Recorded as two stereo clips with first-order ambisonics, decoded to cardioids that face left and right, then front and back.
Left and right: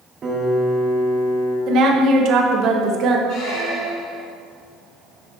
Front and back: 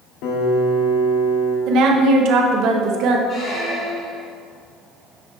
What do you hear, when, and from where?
0.2 s a piano: 25° right, 1.0 m
1.7 s a woman speaking: 140° right, 1.0 m
3.3 s a squeak: 60° left, 1.5 m